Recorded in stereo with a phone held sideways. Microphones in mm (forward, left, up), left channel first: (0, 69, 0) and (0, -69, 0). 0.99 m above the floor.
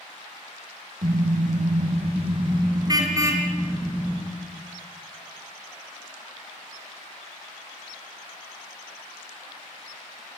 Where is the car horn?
80° right, 2.5 m; by 4.2 s 10° right (ahead or behind), 5 m.